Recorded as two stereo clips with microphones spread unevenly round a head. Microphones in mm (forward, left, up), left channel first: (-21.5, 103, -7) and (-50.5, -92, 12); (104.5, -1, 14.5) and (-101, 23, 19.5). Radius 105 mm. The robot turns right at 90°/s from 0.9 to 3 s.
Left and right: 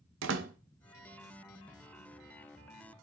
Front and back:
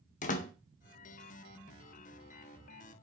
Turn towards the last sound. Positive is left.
turn(degrees=130)